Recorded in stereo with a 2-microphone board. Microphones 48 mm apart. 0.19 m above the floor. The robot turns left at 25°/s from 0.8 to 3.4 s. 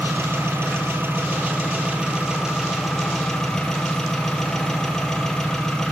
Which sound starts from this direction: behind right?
An engine running, at 0.0 s.